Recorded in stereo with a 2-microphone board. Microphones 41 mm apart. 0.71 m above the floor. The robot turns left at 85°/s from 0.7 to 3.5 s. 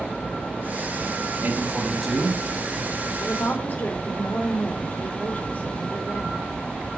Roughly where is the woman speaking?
Left.